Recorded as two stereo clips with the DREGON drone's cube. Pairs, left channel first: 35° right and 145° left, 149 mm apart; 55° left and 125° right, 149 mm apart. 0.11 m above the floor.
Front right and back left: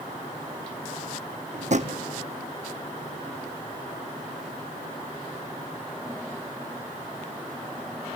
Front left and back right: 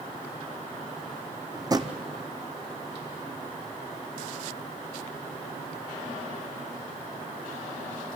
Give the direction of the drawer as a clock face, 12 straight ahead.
6 o'clock.